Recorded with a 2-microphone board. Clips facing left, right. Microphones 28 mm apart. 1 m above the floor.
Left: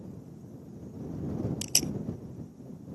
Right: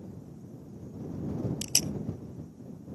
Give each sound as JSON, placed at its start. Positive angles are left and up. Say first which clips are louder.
{"t": 1.6, "sound": "tape being pulled", "louder": "even", "side_deg": 10}